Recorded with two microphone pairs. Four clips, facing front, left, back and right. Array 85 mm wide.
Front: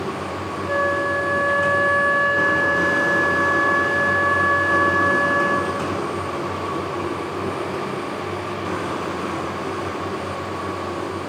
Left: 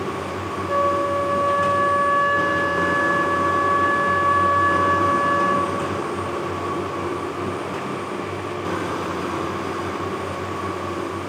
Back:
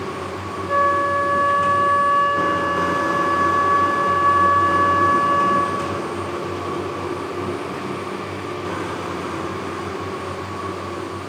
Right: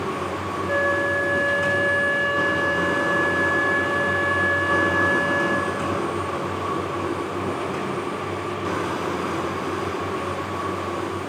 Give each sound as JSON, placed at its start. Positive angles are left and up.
{"t": 0.7, "sound": "a flute", "azimuth_deg": -25, "distance_m": 1.6}